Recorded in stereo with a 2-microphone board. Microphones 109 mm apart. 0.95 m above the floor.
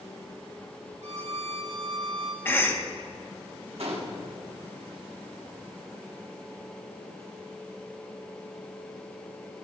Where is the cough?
20° left (ahead or behind), 1.0 m.